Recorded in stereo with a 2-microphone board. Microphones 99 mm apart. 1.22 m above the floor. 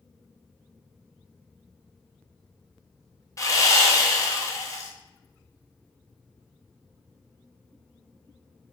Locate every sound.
3.4 s sawing: 35° left (ahead or behind), 0.6 m